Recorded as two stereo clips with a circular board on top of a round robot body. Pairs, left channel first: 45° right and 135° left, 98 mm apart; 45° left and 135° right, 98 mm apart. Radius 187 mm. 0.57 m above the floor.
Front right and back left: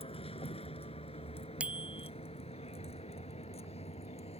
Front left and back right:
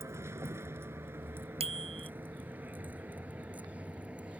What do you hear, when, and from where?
0.0 s a vehicle: 70° right; by 4.4 s 55° right
1.6 s a bicycle bell: 145° right